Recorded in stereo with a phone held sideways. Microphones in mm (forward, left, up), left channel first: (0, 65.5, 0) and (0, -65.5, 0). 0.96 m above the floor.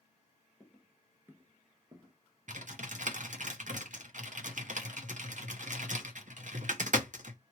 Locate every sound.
0.6 s footsteps: 10° left (ahead or behind), 1.0 m; by 2.1 s 35° right (ahead or behind), 1.4 m
2.5 s typing on a keyboard: 70° right (ahead or behind), 0.7 m